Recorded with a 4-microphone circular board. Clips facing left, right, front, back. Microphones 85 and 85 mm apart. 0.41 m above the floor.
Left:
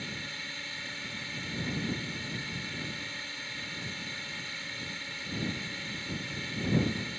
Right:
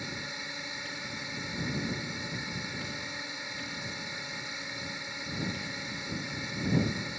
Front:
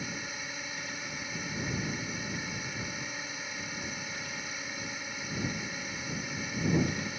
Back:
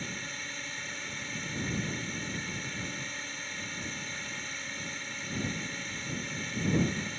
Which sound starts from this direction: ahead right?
A drone, at 0.0 s.